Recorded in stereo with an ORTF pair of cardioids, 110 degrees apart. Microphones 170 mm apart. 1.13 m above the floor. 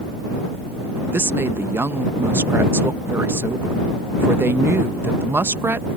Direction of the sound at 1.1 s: 15° right.